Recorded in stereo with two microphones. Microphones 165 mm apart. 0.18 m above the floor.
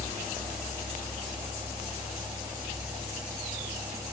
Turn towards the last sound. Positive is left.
No sound to turn to.